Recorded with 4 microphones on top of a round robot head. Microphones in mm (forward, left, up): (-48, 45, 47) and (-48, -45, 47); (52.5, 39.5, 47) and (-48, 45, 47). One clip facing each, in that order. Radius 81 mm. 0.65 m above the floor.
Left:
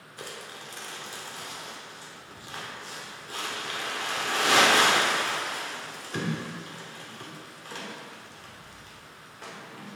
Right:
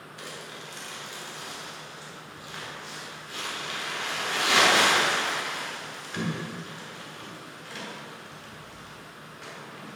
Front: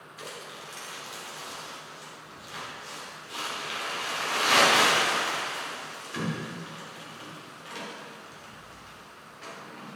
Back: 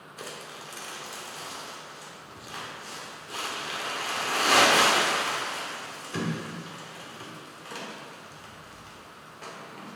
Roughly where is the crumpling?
Behind left.